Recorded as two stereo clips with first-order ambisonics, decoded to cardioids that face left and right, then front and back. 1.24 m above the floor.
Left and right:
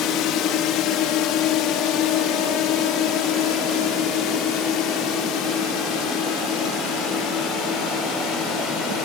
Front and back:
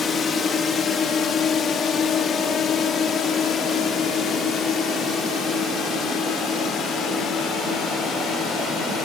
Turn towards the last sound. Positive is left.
turn(degrees=60)